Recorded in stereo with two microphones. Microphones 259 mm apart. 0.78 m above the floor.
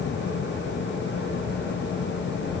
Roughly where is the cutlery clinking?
No cutlery clinking in this recording.